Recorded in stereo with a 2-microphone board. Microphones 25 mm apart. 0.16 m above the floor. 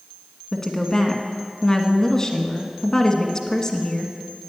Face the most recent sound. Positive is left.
turn(degrees=25)  # may be behind; listen again after turning